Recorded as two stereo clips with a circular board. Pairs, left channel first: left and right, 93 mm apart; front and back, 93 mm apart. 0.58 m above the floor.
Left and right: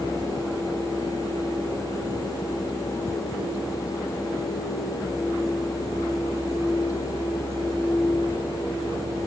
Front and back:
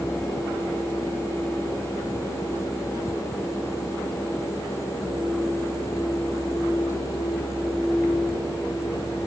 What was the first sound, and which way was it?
Only background noise.